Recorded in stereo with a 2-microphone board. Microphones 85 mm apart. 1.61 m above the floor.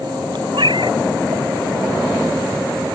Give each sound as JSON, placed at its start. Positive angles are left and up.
{"t": 0.5, "sound": "a cat meowing", "side_deg": -70}